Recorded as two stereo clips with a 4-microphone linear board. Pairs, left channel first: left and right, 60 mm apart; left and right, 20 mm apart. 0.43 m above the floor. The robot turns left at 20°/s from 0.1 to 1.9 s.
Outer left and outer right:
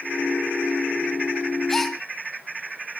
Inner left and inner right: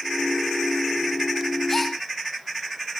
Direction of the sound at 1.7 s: 5° left (ahead or behind).